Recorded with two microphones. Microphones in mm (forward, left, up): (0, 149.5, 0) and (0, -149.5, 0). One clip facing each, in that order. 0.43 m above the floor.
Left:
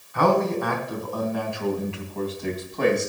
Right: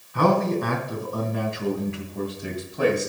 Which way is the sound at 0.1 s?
40° right (ahead or behind).